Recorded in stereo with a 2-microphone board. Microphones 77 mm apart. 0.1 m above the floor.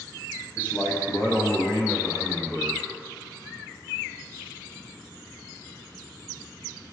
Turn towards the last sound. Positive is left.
turn(degrees=-5)  # may be behind; listen again after turning